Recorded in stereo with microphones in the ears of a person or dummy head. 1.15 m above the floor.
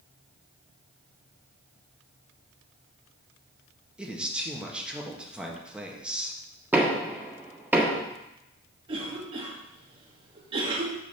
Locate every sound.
4.0 s a man speaking: centre (ahead or behind), 1.5 m
6.7 s knocking: 10° right (ahead or behind), 1.6 m
8.9 s a cough: 30° right (ahead or behind), 1.9 m